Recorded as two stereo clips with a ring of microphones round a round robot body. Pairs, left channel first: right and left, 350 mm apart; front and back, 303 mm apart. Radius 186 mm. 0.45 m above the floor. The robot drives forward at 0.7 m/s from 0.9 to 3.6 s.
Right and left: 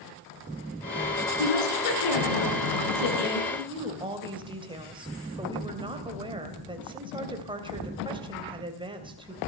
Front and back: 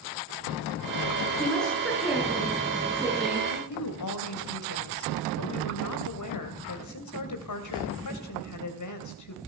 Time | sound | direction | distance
1.4 | a woman speaking | 85° right | 6.5 m
3.5 | a woman speaking | 15° left | 3 m